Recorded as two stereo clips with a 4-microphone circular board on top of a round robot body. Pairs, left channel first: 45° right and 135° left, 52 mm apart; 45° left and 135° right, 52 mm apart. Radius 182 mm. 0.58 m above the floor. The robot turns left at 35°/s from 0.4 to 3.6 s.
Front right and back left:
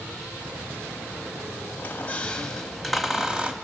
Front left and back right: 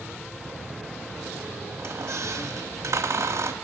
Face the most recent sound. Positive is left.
turn(degrees=-160)